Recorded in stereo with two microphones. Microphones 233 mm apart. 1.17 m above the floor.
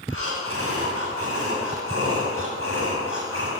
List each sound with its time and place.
0.1 s breathing: 70° right (ahead or behind), 7.5 m